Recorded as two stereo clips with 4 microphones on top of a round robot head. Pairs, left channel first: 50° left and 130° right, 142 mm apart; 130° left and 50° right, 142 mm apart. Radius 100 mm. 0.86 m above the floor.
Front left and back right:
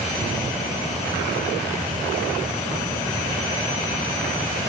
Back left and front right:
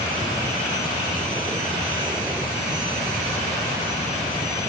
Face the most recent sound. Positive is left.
No sound to turn to.